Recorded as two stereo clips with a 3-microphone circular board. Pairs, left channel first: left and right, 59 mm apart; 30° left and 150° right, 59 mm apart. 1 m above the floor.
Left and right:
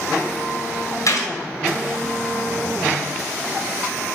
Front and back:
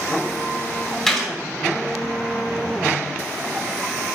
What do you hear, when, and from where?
1.1 s a gunshot: 115° left, 2 m